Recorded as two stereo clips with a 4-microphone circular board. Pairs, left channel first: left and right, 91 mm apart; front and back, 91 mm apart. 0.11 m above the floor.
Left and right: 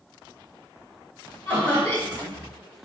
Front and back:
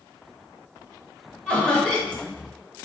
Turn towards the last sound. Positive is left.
turn(degrees=55)